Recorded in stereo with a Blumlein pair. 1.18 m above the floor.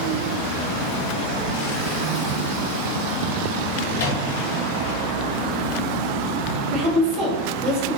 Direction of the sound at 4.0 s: 60° left.